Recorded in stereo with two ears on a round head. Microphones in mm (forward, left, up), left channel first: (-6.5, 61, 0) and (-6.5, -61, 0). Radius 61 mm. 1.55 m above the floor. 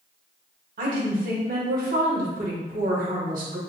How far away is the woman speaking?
About 2 m.